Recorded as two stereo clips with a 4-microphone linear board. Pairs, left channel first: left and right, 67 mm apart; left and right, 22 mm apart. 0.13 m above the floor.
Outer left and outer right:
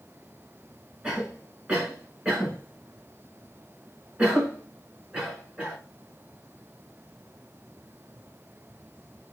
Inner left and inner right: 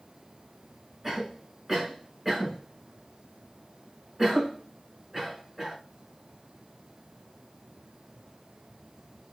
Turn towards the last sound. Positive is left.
turn(degrees=-15)  # may be behind; listen again after turning